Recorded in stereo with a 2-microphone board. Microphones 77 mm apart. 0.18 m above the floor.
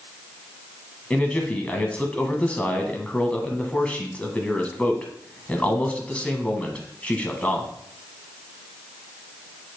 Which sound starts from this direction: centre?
A man speaking, at 1.1 s.